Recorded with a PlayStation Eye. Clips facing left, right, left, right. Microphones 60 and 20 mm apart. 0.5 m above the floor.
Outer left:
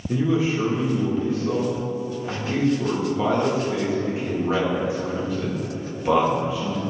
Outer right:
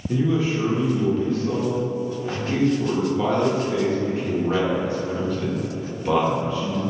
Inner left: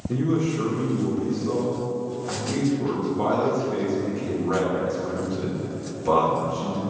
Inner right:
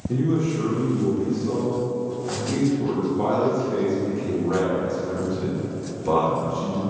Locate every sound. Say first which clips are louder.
0.1 s a man speaking: even, inner right 1 dB; 5° left (ahead or behind), 0.8 m